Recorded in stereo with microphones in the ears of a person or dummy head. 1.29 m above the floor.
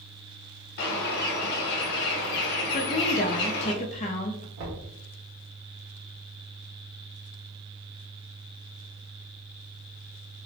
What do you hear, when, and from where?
0.8 s a bird: 50° left (ahead or behind), 0.8 m
2.7 s a woman speaking: 35° left (ahead or behind), 0.5 m
4.6 s knocking: 75° right (ahead or behind), 1.5 m